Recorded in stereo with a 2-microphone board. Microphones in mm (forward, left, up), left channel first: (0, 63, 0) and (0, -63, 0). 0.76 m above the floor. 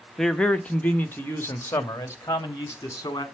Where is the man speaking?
Centre (ahead or behind), 0.8 m; by 3.2 s 25° left (ahead or behind), 2 m.